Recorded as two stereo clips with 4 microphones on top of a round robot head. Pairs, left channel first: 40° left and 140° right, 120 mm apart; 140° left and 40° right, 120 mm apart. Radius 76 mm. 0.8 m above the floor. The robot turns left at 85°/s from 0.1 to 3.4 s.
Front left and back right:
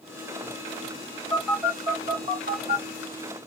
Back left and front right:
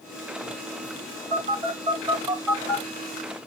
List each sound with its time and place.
1.3 s a phone buzzing: 35° right, 1.8 m; by 2.9 s 165° right, 1.8 m